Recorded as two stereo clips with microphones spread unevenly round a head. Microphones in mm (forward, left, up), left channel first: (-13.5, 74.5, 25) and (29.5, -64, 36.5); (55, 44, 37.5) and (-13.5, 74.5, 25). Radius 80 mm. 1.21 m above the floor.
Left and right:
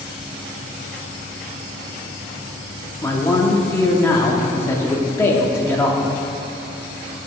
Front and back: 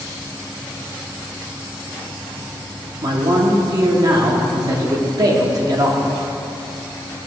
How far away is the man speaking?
About 0.9 m.